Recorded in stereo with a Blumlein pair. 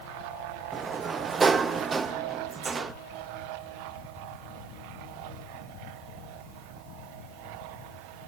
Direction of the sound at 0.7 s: 15° right.